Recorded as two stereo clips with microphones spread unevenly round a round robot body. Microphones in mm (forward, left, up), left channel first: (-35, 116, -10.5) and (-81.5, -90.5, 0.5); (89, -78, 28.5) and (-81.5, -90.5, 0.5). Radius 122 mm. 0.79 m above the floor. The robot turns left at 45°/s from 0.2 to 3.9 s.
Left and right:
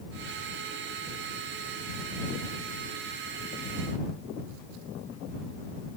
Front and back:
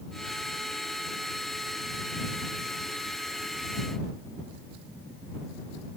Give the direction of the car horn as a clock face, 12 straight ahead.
I don't hear a car horn.